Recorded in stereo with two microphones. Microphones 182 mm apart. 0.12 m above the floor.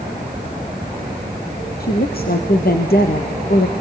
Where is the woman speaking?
65° left (ahead or behind), 2.5 m.